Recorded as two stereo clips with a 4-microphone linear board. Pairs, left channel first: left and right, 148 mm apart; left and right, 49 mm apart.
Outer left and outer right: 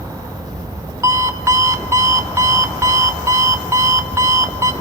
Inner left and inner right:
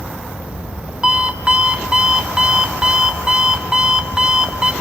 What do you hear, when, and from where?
1.0 s an alarm clock: 20° right (ahead or behind), 0.7 m